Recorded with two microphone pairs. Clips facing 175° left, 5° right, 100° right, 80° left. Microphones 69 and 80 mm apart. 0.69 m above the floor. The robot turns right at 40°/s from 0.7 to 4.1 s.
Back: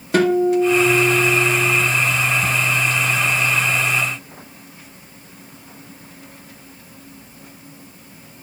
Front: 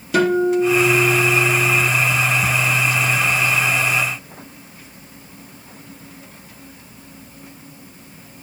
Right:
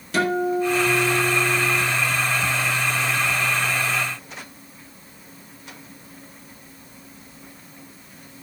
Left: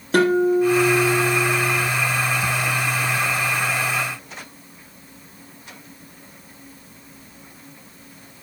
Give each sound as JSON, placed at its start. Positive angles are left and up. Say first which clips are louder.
{"t": 0.1, "sound": "a guitar", "louder": "back 1 dB, left 5 dB", "azimuth_deg": 125, "distance_m": 4.0}